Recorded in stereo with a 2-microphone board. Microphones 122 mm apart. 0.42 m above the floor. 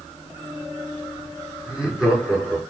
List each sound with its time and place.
1.6 s laughter: 5° right (ahead or behind), 4 m